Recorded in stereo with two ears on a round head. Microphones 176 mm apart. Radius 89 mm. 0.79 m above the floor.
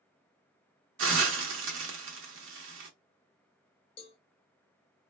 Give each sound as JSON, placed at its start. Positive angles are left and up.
{"t": 1.0, "sound": "a hiss", "side_deg": -70, "distance_m": 0.9}
{"t": 4.0, "sound": "a cowbell", "side_deg": 25, "distance_m": 0.5}